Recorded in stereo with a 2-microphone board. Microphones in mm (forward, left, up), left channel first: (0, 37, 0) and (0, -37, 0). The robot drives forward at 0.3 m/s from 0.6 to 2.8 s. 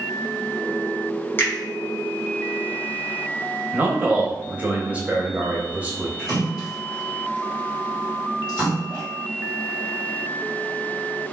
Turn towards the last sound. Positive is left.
turn(degrees=0)  # may be behind; listen again after turning